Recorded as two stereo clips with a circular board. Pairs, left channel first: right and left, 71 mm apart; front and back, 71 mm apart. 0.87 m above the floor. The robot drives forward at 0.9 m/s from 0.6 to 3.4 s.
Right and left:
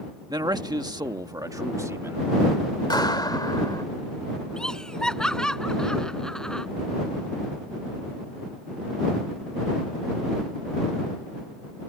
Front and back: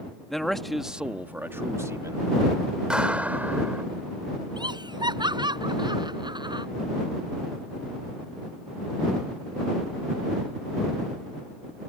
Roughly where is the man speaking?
Left.